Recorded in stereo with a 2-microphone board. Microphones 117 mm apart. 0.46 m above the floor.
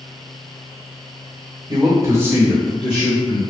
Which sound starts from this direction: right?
A man speaking, at 1.7 s.